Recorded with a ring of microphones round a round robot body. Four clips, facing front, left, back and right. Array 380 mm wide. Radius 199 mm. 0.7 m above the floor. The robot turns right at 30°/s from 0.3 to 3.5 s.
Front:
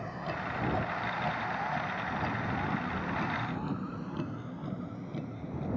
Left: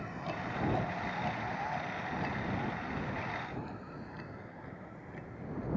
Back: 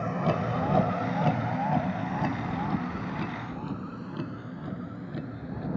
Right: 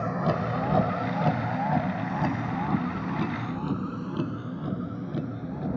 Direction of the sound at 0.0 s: 115° right.